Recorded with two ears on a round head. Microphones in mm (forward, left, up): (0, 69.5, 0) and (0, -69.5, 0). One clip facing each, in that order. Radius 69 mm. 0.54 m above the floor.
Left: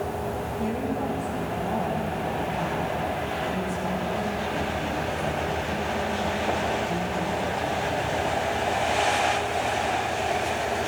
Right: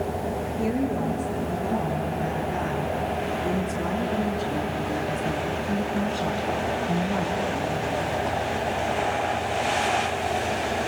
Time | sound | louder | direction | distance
0.6 | a woman speaking | right 3 dB | 70° right (ahead or behind) | 9.5 m